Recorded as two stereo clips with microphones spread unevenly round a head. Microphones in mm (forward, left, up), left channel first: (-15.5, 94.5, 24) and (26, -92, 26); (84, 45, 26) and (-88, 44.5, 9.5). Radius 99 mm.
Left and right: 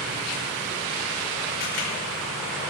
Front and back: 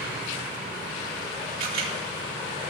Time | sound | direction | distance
1.6 | a camera shutter | 150° left | 5 m